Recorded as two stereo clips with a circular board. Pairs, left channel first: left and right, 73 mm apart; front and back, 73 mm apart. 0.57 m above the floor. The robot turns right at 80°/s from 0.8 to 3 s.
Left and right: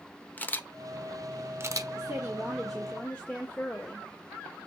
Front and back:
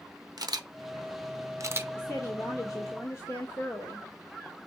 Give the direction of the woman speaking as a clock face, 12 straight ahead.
2 o'clock.